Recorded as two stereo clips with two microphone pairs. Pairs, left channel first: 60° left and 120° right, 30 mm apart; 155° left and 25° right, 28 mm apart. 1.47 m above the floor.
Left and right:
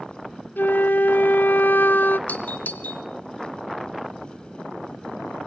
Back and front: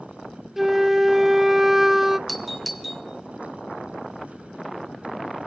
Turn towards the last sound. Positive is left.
turn(degrees=70)